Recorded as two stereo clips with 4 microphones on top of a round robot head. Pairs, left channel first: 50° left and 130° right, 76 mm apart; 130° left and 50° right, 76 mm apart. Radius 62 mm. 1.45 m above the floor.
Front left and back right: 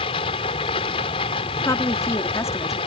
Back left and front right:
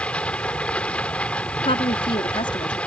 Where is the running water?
55° left.